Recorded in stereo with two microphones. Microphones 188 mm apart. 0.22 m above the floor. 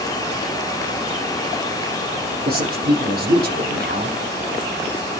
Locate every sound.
2.5 s a man speaking: 60° right (ahead or behind), 8 m